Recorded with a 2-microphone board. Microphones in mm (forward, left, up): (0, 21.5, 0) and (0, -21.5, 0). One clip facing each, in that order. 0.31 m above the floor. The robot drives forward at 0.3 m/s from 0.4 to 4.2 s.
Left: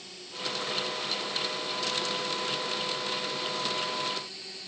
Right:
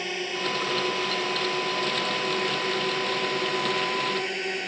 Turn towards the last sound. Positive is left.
turn(degrees=-65)  # may be behind; listen again after turning